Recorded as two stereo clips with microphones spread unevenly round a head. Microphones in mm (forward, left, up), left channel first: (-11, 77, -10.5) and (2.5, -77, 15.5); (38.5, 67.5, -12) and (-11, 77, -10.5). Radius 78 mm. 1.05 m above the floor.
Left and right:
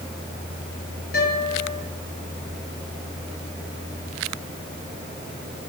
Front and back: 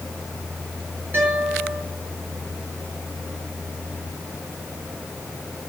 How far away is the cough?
No cough in this recording.